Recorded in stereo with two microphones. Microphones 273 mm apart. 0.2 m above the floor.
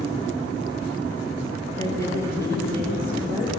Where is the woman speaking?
10° left (ahead or behind), 3 m.